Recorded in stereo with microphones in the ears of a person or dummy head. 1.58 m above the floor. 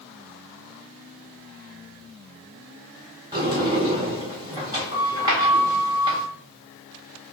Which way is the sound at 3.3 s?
20° right (ahead or behind).